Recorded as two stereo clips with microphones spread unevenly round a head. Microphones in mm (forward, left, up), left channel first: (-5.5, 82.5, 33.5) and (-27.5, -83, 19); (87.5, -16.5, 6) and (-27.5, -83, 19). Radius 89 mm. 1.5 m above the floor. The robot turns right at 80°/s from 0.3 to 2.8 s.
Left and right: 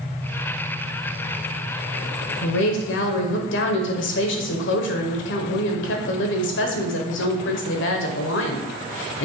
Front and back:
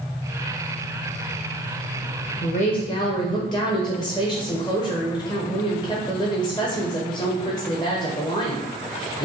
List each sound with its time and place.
2.4 s a woman speaking: 65° left, 0.8 m; by 9.2 s 100° left, 0.8 m